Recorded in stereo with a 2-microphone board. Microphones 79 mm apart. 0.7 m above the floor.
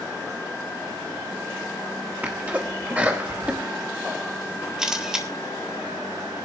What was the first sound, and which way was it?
A sneeze, 20° right (ahead or behind).